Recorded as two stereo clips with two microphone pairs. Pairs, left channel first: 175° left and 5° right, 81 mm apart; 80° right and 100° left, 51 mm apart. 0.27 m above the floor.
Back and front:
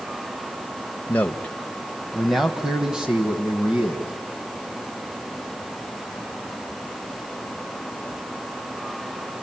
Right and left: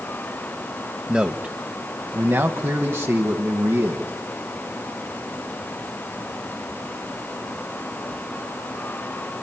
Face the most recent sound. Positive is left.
turn(degrees=70)